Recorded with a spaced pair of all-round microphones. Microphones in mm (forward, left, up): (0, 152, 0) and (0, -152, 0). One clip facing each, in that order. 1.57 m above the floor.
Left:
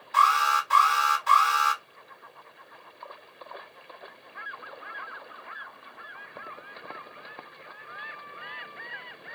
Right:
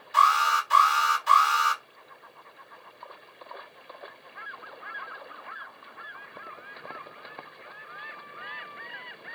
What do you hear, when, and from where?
0.1 s an alarm: 60° left (ahead or behind), 1.8 m